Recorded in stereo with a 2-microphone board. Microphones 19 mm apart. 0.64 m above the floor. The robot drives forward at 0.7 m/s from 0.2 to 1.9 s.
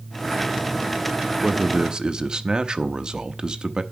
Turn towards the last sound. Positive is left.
turn(degrees=-45)  # may be behind; listen again after turning